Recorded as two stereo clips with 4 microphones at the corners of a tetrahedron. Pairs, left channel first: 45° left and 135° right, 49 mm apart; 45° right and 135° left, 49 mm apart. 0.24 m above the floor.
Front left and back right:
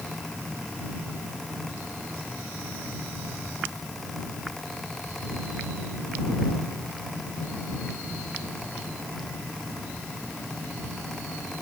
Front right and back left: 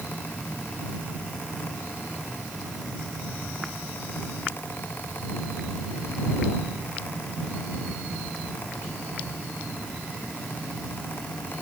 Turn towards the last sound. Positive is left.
No sound to turn to.